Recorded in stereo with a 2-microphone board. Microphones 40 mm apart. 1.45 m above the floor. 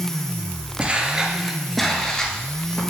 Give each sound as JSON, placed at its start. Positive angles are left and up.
{"t": 0.8, "sound": "footsteps", "side_deg": -30, "distance_m": 1.5}